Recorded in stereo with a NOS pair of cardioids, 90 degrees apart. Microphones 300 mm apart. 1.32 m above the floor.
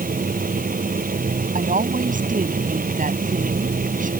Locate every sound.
0.0 s a machine running: 30° right
1.6 s a woman speaking: 25° right